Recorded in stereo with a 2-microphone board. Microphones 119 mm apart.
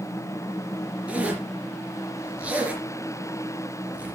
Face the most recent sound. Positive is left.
turn(degrees=-10)  # may be behind; listen again after turning